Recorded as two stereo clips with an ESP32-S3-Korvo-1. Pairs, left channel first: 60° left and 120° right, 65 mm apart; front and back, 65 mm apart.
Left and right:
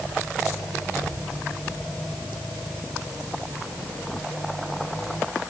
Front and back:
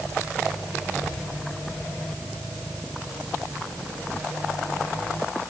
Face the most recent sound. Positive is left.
No sound to turn to.